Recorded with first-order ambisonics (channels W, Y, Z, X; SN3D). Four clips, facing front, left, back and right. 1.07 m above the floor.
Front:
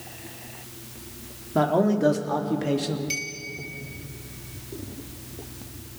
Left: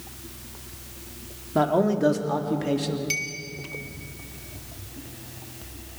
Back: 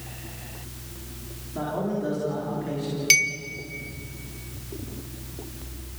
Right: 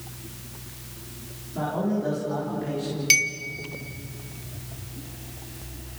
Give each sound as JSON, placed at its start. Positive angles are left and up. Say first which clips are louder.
{"t": 1.6, "sound": "a man speaking", "louder": "left 6 dB, front 7 dB", "azimuth_deg": 45, "distance_m": 3.0}
{"t": 3.1, "sound": "a clink", "louder": "right 8 dB, back 11 dB", "azimuth_deg": -145, "distance_m": 1.0}